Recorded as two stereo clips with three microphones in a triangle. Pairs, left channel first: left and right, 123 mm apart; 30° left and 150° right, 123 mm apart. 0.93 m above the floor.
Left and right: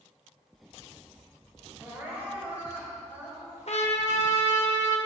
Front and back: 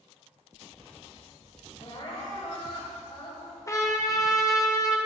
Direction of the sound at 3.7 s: 90° left.